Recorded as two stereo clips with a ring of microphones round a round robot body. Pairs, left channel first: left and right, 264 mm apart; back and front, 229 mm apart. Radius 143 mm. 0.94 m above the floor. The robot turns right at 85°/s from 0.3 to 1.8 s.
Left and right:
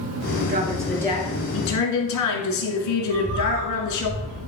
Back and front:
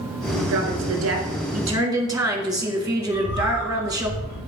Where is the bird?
120° right, 5 m.